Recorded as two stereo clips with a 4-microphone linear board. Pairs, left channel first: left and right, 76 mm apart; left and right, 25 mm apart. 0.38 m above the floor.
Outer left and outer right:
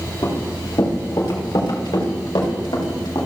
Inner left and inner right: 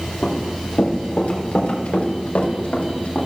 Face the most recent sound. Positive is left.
turn(degrees=80)